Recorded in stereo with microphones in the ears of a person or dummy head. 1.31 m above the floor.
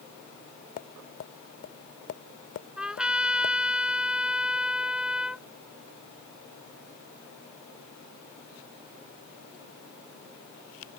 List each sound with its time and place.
0.8 s tapping: 45° left (ahead or behind)
2.8 s a trumpet: 5° right (ahead or behind)